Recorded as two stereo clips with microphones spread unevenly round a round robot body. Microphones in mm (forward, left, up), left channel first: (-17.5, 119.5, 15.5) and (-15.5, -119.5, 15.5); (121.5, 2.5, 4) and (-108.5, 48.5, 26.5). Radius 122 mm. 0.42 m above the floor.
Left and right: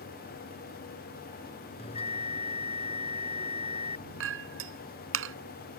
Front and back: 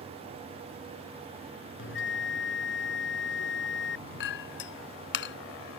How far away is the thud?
I don't hear a thud.